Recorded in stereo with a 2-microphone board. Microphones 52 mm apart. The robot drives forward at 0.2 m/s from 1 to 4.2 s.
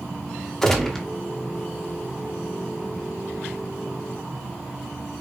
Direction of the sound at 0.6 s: 10° left (ahead or behind).